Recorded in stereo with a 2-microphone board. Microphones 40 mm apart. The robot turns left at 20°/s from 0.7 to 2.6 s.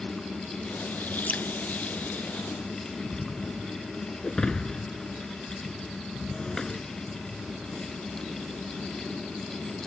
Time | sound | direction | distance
1.3 | dripping | 35° left (ahead or behind) | ?
4.2 | breaking glass | 20° left (ahead or behind) | ?